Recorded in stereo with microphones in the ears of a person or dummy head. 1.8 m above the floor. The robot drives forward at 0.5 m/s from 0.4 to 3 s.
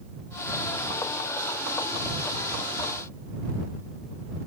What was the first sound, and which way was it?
Only background noise.